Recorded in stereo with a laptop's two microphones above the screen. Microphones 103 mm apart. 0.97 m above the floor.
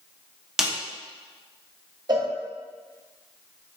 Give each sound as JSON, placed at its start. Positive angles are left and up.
{"t": 0.6, "sound": "a snare drum", "side_deg": -5, "distance_m": 0.8}
{"t": 2.1, "sound": "a cowbell", "side_deg": -45, "distance_m": 0.5}